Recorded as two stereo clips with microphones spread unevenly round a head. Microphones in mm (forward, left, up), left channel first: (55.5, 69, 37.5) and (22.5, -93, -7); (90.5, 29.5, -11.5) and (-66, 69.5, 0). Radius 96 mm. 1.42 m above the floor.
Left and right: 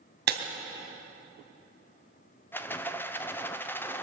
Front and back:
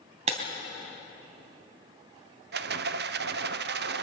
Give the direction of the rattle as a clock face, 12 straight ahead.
7 o'clock.